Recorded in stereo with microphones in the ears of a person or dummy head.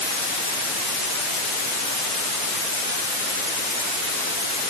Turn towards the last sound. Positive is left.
No sound to turn to.